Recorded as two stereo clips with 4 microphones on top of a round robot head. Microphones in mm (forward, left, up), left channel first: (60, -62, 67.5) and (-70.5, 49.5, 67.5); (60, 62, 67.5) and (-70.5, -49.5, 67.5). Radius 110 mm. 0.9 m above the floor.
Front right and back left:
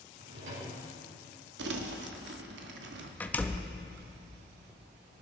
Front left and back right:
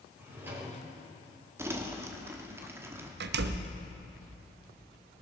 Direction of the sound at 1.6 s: 145° left.